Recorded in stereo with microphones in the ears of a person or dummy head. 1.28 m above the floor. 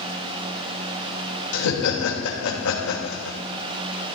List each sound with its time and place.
1.5 s laughter: 65° left (ahead or behind), 2.5 m